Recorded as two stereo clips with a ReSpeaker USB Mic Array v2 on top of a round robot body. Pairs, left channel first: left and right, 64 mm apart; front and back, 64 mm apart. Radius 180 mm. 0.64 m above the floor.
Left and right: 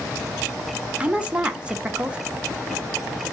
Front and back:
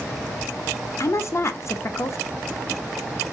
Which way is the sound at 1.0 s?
20° right.